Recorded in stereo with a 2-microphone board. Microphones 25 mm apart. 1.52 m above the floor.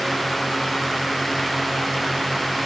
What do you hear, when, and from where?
Only background noise.